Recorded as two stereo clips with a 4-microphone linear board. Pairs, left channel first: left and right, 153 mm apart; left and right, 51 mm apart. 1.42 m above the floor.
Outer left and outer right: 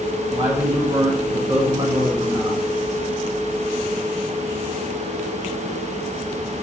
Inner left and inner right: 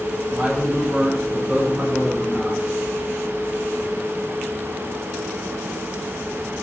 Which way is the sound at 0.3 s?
25° right (ahead or behind).